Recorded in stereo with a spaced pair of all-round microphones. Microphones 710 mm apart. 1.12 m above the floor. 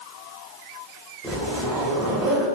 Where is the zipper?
Centre (ahead or behind), 1.0 m.